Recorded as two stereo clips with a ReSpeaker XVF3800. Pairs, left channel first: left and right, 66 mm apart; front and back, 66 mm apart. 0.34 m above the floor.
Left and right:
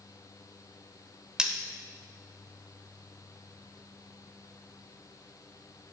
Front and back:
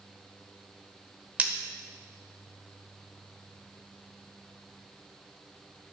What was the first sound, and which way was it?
Cutlery clinking, 155° right.